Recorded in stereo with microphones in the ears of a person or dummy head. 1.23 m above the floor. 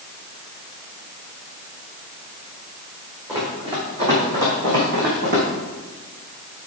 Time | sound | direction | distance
3.3 | running footsteps | 20° right (ahead or behind) | 4 m